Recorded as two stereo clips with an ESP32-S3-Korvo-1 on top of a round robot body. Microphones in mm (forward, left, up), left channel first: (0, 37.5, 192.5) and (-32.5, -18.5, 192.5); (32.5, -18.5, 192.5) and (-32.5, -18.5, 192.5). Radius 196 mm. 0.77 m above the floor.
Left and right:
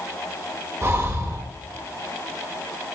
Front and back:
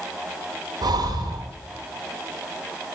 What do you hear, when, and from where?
0.8 s breathing: 170° right, 1.5 m